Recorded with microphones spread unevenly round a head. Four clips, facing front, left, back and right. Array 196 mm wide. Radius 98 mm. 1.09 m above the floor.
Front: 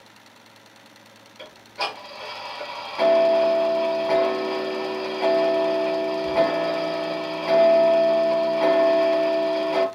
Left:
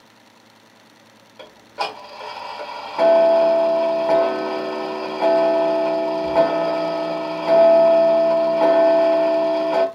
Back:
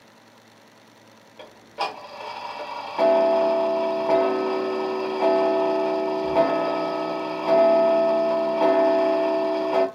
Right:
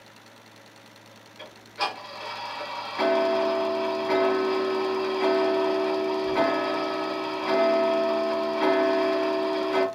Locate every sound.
1.4 s ticking: 120° left, 0.8 m